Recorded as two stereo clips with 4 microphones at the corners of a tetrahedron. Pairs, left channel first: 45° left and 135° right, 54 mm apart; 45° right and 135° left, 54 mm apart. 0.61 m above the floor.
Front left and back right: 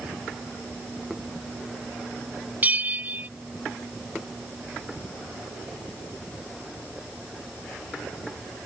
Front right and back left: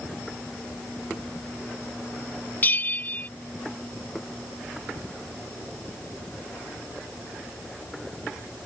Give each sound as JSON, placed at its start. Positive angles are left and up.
{"t": 2.6, "sound": "a bell", "azimuth_deg": -90}